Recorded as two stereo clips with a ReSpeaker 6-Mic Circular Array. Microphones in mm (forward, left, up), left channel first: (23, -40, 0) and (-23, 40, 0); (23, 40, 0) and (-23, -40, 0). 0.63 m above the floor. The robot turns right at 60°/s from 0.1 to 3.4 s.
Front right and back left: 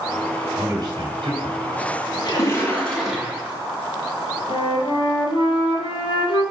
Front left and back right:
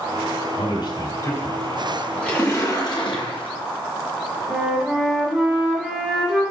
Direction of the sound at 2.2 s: 20° right.